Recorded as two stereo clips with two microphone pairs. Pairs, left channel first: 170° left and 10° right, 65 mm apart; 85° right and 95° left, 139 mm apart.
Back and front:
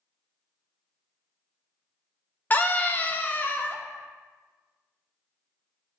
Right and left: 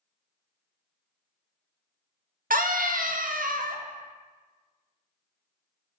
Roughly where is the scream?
Left.